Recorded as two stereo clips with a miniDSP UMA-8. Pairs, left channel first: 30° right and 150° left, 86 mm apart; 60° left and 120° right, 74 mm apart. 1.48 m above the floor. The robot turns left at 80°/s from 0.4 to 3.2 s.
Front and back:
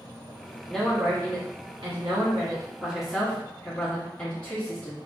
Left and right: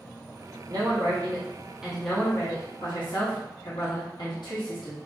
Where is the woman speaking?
110° right, 0.8 m; by 5.0 s 50° left, 0.8 m.